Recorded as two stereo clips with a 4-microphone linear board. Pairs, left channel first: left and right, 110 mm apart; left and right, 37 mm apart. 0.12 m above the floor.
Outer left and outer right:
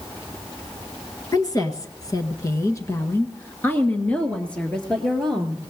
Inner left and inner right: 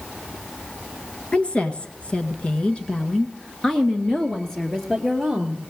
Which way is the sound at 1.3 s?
35° left (ahead or behind).